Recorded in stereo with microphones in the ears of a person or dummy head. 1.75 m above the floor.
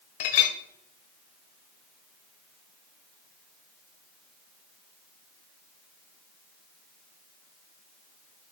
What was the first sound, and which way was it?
A clink, 40° left (ahead or behind).